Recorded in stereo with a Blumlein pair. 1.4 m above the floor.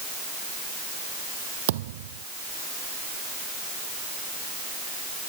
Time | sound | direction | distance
1.7 | a thud | 55° right | ?